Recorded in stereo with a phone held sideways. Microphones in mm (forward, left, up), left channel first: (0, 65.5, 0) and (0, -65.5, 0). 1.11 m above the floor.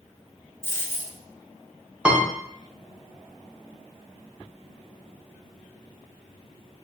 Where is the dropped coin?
20° left (ahead or behind), 0.8 m.